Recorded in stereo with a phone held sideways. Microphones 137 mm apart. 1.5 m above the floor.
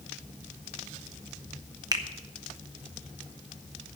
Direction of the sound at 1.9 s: 25° right (ahead or behind).